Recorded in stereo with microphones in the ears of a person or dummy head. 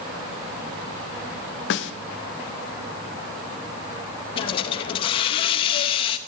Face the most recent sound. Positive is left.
turn(degrees=35)  # may be behind; listen again after turning